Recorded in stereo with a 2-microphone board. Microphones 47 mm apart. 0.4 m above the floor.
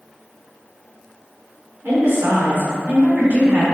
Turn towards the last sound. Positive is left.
turn(degrees=-30)  # may be behind; listen again after turning